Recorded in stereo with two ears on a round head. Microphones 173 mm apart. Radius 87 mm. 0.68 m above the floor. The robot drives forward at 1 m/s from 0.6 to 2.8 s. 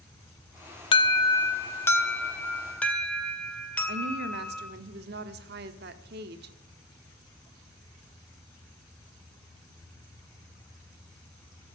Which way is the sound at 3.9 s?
55° right (ahead or behind).